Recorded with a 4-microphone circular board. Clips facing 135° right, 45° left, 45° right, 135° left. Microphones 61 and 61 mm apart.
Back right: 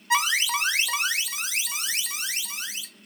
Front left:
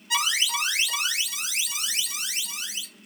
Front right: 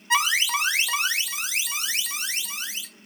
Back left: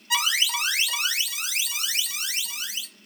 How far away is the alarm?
About 0.6 m.